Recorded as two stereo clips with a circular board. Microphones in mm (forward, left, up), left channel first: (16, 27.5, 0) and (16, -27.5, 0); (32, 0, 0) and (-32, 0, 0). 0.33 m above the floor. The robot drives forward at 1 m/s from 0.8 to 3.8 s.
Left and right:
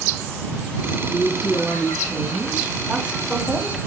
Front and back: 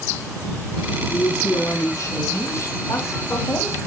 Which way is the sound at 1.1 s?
15° right.